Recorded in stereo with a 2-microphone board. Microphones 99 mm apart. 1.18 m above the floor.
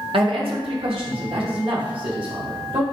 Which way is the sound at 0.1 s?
65° right (ahead or behind).